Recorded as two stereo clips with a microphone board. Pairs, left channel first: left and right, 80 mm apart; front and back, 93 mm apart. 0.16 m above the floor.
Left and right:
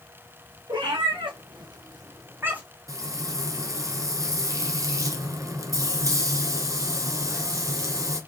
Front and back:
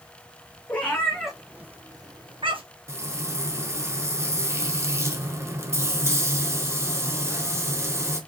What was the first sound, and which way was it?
A cat meowing, 70° right.